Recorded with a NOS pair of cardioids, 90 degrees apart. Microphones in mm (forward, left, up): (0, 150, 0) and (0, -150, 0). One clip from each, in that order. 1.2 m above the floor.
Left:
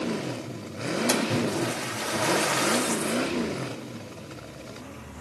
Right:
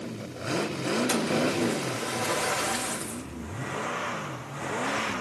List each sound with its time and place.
1.1 s a splash: 40° left, 1.9 m